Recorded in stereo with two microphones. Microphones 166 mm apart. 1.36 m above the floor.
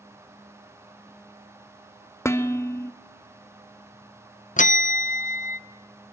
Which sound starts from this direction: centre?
Dishes clattering, at 2.2 s.